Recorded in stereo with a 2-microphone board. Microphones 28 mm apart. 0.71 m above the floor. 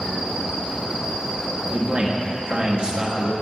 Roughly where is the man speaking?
Right.